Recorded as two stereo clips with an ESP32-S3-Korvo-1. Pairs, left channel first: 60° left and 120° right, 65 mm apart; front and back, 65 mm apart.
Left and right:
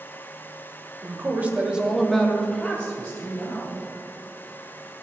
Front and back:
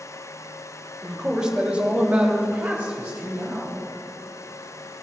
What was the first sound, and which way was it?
A man speaking, 100° right.